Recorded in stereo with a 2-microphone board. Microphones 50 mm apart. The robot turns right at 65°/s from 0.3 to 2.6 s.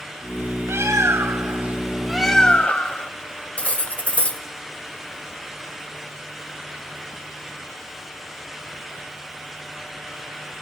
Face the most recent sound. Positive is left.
turn(degrees=25)  # may be behind; listen again after turning